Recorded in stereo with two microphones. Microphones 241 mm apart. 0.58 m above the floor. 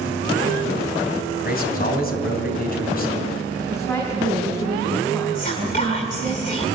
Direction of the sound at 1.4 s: 40° left (ahead or behind).